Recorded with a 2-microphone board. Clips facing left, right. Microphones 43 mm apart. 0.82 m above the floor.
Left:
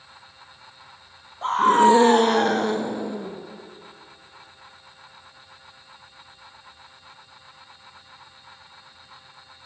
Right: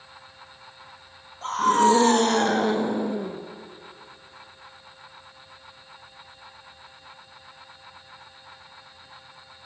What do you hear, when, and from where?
1.4 s a scream: 25° left (ahead or behind), 1.0 m; by 3.4 s 20° right (ahead or behind), 0.9 m